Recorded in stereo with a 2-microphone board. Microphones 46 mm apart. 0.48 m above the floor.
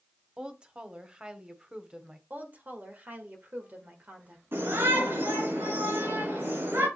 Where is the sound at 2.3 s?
40° right (ahead or behind), 1.7 m.